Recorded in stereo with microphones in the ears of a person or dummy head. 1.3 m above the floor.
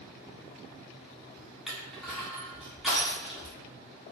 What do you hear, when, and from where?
1.7 s crushing: centre (ahead or behind), 1.6 m